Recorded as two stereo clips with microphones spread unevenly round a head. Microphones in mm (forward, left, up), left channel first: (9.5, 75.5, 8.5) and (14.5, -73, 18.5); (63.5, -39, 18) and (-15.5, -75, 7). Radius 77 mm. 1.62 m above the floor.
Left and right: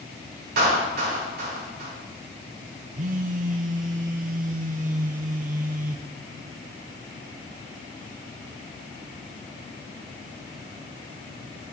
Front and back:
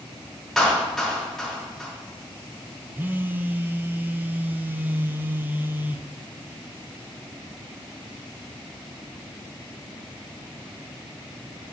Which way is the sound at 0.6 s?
65° right.